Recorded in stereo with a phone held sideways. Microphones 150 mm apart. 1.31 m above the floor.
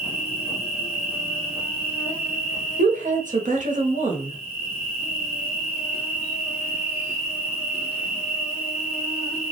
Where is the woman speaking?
55° right (ahead or behind), 0.6 m.